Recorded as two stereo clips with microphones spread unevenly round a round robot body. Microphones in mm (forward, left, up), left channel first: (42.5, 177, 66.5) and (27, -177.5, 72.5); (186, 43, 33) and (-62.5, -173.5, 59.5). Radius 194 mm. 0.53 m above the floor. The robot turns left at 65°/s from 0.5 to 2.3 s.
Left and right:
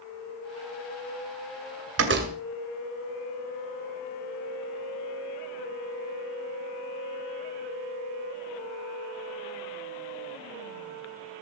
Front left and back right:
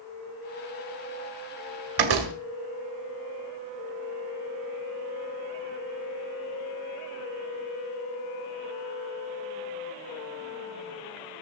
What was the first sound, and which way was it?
A door slam, 145° right.